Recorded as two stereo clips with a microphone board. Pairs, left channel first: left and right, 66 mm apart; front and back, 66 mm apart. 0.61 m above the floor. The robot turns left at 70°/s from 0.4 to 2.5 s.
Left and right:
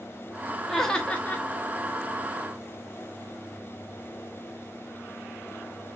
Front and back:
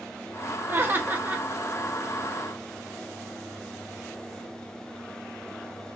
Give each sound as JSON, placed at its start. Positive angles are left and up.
{"t": 0.7, "sound": "laughter", "azimuth_deg": 175, "distance_m": 1.0}